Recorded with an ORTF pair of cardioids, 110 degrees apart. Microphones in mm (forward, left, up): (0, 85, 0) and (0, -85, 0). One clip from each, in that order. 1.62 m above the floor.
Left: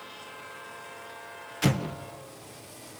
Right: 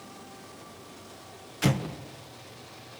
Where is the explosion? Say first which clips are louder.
Even; straight ahead, 1.3 m.